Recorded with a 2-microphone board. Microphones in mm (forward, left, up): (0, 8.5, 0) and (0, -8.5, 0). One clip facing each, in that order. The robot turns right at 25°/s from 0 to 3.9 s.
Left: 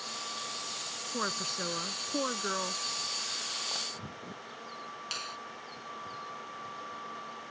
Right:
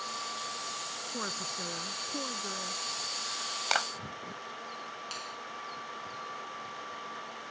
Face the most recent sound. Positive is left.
turn(degrees=25)  # may be behind; listen again after turning